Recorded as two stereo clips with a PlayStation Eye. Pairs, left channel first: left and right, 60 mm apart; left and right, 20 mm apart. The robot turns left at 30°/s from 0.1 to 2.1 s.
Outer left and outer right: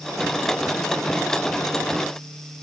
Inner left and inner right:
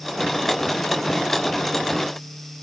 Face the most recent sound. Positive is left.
No sound to turn to.